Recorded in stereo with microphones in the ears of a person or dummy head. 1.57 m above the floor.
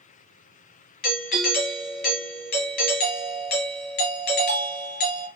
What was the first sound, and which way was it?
A doorbell, 45° left (ahead or behind).